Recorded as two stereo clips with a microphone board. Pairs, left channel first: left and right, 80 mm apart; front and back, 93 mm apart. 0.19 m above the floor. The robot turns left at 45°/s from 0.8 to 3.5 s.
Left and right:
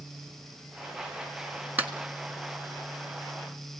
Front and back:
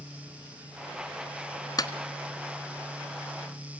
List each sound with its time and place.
1.8 s a clap: 25° right, 1.5 m; by 1.9 s 30° right, 1.5 m